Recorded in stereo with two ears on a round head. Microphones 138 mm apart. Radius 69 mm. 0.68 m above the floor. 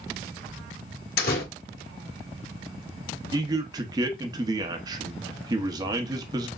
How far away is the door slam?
About 1.9 m.